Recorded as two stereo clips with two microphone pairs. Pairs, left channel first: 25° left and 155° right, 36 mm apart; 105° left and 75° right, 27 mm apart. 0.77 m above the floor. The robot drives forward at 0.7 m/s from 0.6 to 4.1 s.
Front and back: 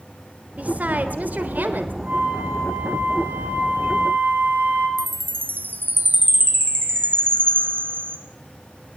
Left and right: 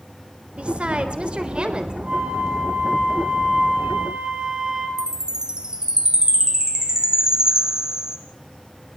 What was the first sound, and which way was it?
A woman speaking, 115° right.